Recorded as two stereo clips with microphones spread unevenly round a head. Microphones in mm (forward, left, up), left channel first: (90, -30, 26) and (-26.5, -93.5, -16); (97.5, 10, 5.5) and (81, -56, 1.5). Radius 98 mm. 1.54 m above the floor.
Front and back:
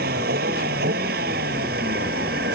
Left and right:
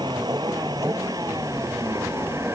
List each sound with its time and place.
0.0 s a vehicle: 175° right; by 2.6 s 175° left